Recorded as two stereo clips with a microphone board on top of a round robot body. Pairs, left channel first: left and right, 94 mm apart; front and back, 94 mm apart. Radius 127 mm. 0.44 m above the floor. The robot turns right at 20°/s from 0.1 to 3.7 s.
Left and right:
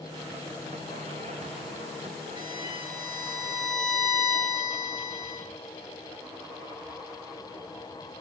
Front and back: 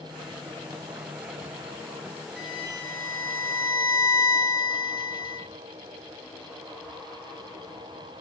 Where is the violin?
90° right, 2 m; by 5.5 s 65° right, 2 m.